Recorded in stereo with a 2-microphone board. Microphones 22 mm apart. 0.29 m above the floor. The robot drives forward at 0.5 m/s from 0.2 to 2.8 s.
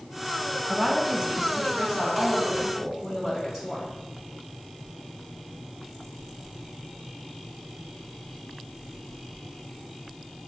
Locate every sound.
0.7 s a woman speaking: 25° right (ahead or behind), 1.9 m; by 3.9 s 20° right (ahead or behind), 2.5 m